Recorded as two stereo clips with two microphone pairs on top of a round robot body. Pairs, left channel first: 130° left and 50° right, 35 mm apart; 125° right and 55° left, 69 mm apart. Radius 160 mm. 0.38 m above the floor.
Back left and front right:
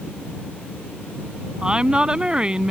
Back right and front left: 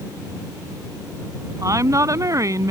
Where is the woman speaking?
15° left.